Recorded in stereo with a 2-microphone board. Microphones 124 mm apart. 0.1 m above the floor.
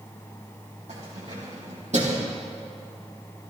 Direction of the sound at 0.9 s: 65° right (ahead or behind).